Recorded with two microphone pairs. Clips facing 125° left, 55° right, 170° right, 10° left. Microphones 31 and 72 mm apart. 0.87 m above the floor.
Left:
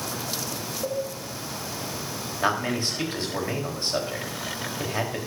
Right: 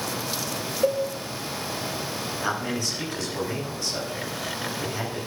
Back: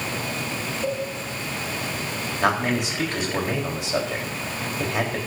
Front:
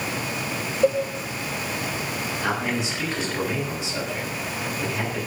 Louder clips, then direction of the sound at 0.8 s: Right 6 dB, front 8 dB; 15° right.